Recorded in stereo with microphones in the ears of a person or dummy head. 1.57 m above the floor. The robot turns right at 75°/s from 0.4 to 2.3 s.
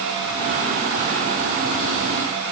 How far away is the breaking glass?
I don't hear breaking glass.